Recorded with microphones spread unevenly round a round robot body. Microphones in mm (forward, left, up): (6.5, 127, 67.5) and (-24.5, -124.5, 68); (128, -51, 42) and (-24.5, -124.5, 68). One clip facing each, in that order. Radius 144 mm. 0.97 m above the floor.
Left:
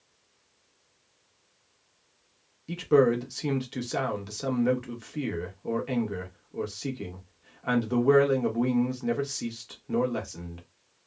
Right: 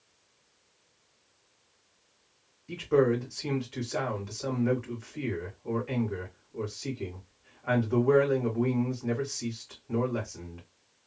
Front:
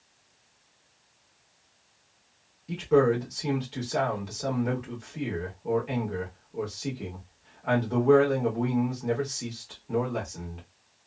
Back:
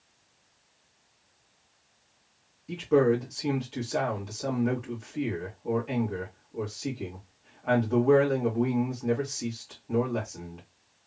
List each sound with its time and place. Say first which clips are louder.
2.7 s a man speaking: left 3 dB, front 1 dB; 110° left, 1.2 m